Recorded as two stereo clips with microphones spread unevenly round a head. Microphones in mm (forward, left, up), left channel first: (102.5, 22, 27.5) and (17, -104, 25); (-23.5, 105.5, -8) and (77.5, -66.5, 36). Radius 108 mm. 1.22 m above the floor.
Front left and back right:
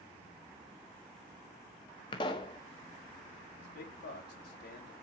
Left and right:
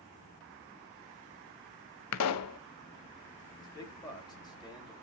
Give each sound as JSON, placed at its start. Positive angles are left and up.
{"t": 2.1, "sound": "a pop", "azimuth_deg": 125, "distance_m": 0.6}
{"t": 3.6, "sound": "a man speaking", "azimuth_deg": 50, "distance_m": 4.0}